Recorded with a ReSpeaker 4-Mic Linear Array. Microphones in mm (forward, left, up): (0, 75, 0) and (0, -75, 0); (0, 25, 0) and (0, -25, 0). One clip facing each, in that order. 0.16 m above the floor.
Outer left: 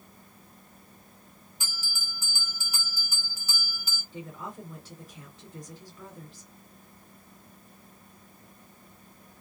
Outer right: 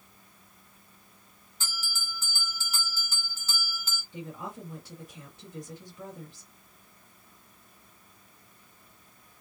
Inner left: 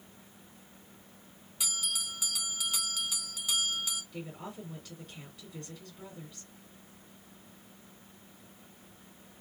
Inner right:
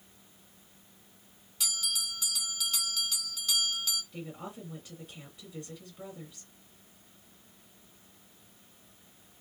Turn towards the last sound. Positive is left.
turn(degrees=-10)  # may be behind; listen again after turning